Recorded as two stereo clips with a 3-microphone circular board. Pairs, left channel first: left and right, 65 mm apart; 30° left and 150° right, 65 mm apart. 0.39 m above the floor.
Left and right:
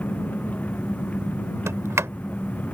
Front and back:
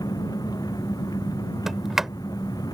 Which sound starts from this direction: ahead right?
A sliding door, at 1.7 s.